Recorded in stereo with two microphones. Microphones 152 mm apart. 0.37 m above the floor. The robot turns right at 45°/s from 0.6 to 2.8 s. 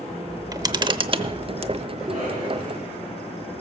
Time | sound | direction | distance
0.3 | a camera shutter | 140° right | 0.7 m
2.0 | a cough | 130° right | 7 m